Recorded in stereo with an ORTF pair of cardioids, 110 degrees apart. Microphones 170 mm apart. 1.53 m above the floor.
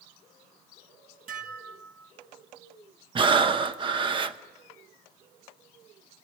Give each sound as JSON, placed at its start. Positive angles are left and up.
{"t": 1.3, "sound": "dishes clattering", "azimuth_deg": -55, "distance_m": 2.0}
{"t": 3.1, "sound": "breathing", "azimuth_deg": -30, "distance_m": 0.9}